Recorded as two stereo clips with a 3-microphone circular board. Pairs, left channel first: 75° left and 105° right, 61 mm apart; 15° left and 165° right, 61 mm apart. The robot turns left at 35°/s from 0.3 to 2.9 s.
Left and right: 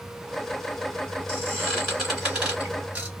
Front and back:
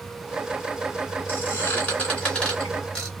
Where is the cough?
I don't hear a cough.